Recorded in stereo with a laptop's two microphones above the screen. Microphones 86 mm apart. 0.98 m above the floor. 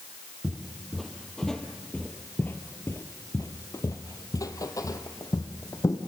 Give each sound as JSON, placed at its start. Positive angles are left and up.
{"t": 0.4, "sound": "footsteps", "side_deg": -5, "distance_m": 1.7}